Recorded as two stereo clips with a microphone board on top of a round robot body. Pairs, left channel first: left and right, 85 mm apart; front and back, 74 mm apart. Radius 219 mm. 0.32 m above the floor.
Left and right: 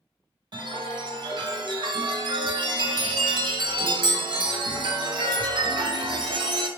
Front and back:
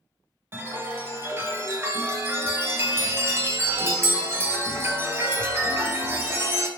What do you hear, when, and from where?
0.5 s a chime: 120° right, 0.9 m